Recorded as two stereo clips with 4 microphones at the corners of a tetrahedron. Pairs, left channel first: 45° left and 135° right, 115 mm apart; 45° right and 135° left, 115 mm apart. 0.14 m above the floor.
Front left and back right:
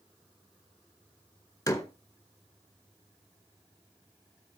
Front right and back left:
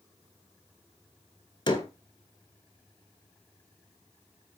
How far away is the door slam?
About 1.7 m.